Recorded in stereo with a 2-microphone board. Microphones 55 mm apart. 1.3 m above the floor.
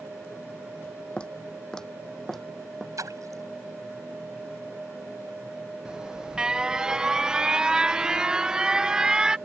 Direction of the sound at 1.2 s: 20° left (ahead or behind).